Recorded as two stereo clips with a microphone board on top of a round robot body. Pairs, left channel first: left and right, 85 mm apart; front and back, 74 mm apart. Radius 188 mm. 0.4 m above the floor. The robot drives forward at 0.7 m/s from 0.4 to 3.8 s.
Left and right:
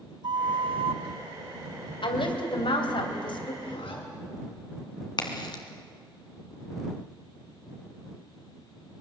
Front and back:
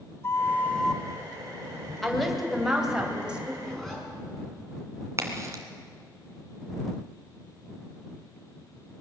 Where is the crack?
125° left, 2 m.